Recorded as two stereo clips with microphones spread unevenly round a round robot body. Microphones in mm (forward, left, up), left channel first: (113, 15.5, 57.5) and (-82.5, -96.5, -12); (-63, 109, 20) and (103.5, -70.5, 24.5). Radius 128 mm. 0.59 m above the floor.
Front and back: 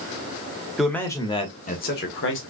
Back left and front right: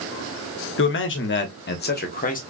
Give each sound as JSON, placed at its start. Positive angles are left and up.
{"t": 0.8, "sound": "a man speaking", "azimuth_deg": 140, "distance_m": 1.0}